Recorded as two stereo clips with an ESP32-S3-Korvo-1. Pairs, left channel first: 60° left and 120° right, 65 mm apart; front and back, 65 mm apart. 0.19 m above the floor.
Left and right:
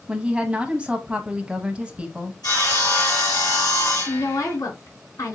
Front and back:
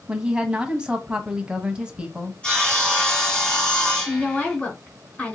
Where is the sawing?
75° left, 3.5 m.